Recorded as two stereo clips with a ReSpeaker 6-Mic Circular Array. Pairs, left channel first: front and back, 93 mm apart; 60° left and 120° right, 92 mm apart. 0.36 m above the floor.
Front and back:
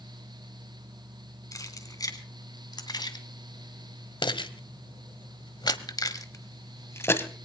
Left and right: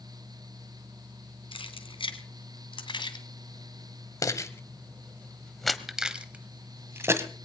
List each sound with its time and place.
1.5 s keys jangling: 50° left, 2.5 m; by 7.3 s 65° right, 1.7 m